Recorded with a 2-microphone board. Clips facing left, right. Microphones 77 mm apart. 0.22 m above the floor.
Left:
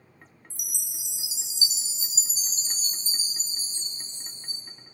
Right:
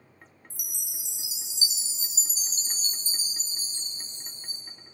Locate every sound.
0.5 s a chime: 50° right (ahead or behind), 1.3 m